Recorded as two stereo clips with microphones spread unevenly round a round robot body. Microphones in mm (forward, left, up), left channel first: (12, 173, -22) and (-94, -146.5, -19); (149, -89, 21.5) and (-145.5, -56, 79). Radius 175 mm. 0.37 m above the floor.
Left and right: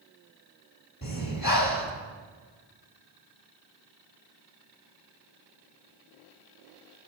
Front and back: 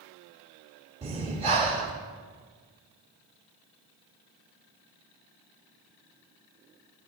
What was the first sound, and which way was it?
Breathing, 100° left.